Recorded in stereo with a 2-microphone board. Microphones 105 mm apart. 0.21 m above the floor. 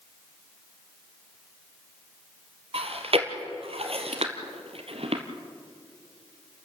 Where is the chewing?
65° right (ahead or behind), 1.8 m.